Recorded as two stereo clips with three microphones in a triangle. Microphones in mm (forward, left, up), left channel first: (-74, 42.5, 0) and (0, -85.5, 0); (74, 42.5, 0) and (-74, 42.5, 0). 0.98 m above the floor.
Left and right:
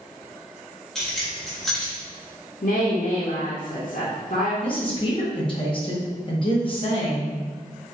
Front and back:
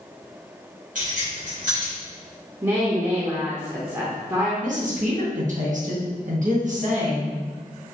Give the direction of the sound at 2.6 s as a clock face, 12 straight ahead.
8 o'clock.